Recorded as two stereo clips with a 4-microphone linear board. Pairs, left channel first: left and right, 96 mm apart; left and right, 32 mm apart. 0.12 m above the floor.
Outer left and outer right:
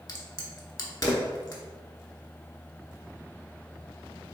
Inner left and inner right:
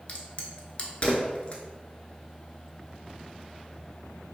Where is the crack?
40° left (ahead or behind), 0.5 m.